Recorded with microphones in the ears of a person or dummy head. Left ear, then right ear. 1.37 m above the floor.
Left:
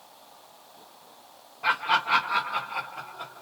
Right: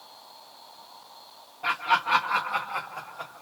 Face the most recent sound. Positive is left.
turn(degrees=-60)  # may be behind; listen again after turning